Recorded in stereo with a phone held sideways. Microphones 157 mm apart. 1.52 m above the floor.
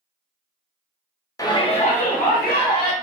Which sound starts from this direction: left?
A shout, at 1.4 s.